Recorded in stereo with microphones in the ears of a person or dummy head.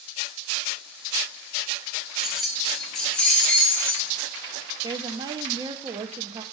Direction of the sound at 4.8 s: 20° right (ahead or behind).